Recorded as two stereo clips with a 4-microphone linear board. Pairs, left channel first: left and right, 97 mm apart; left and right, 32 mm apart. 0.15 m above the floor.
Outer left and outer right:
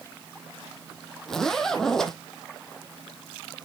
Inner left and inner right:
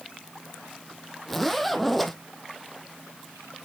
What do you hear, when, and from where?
1.3 s a zipper: 5° left (ahead or behind), 1.7 m